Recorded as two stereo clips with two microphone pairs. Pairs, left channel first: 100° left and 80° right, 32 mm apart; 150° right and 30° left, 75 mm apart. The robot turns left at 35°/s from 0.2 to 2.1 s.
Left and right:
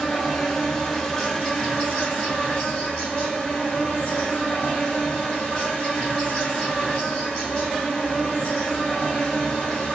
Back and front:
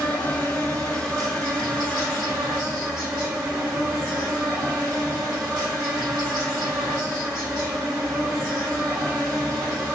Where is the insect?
175° left, 1.3 m; by 10.0 s 110° left, 1.3 m.